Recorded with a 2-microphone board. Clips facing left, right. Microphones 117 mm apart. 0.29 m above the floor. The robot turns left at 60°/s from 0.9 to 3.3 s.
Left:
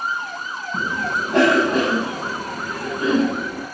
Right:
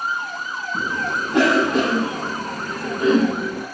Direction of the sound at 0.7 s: 75° left (ahead or behind).